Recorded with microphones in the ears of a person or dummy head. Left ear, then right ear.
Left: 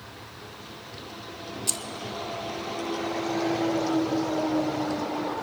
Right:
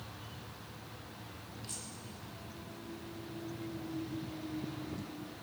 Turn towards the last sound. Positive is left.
turn(degrees=50)  # may be behind; listen again after turning